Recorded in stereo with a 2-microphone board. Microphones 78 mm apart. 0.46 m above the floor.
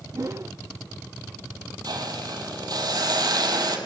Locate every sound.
0.1 s a whoosh: 40° right (ahead or behind), 0.6 m
1.8 s a hiss: 60° right (ahead or behind), 3 m